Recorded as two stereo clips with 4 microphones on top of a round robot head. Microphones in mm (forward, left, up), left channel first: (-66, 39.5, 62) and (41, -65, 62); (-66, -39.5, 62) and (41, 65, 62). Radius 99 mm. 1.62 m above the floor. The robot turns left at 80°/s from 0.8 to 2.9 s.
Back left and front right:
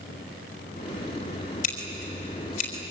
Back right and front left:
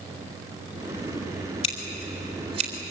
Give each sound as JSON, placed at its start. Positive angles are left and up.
{"t": 1.6, "sound": "scissors", "azimuth_deg": 175, "distance_m": 4.0}